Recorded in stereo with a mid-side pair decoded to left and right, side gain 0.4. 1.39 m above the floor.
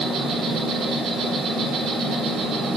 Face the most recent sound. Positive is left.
turn(degrees=-65)